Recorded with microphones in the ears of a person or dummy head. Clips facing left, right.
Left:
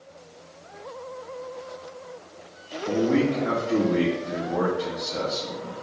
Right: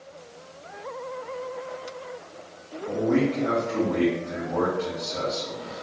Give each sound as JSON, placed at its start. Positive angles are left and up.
{"t": 2.9, "sound": "a man speaking", "side_deg": 40, "distance_m": 0.9}